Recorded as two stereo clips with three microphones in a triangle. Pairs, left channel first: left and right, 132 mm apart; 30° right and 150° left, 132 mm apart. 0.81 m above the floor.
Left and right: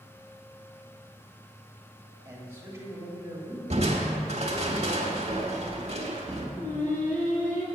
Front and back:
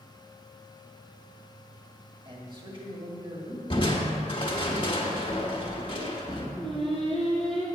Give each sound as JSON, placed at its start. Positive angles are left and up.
{"t": 2.2, "sound": "a man speaking", "azimuth_deg": -160, "distance_m": 2.0}
{"t": 3.7, "sound": "crushing", "azimuth_deg": -70, "distance_m": 1.4}
{"t": 6.6, "sound": "singing", "azimuth_deg": 100, "distance_m": 3.0}